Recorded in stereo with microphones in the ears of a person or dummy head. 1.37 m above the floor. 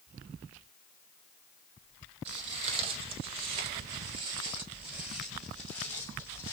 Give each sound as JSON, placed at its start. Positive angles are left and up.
{"t": 2.2, "sound": "footsteps", "side_deg": -40, "distance_m": 2.5}